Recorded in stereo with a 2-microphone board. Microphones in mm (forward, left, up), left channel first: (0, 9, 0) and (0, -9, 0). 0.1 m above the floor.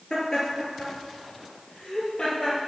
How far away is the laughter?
About 2 m.